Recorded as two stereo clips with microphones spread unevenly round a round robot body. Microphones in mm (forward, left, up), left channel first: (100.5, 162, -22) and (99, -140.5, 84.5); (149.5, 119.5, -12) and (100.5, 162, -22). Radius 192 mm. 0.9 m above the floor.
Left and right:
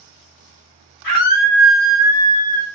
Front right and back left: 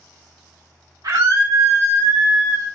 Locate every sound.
1.0 s a scream: 140° left, 1.2 m; by 2.6 s 175° right, 1.9 m